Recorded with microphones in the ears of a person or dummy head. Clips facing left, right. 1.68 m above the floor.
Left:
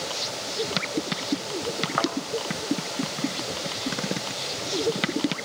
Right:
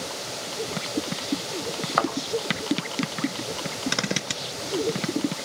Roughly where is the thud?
Right.